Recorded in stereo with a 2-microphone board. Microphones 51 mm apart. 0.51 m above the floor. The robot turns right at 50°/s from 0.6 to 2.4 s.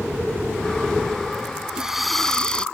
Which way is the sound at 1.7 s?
15° right.